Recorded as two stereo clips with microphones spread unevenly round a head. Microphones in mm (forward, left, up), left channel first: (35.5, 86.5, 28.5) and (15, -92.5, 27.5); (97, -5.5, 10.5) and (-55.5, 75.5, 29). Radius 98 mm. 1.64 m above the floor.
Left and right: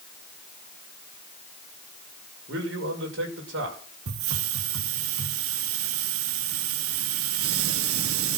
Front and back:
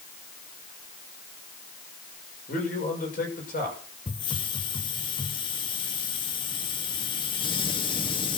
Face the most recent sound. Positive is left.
turn(degrees=-95)